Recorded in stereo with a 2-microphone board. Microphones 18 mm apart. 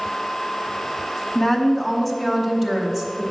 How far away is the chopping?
No chopping in this recording.